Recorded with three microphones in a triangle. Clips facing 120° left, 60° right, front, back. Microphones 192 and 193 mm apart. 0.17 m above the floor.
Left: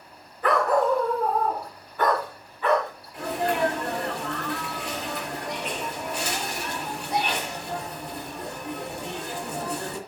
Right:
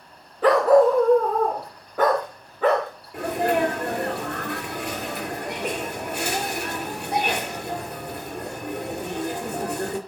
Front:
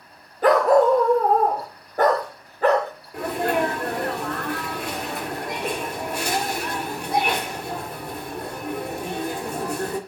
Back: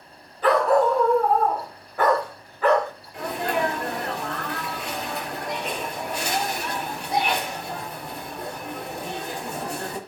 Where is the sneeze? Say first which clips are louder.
Right 4 dB, front 3 dB; 35° right, 3.5 m.